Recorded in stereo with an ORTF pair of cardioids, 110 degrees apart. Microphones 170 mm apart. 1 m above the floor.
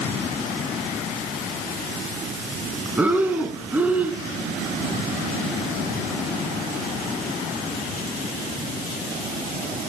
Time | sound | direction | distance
3.0 | breathing | 10° right | 4 m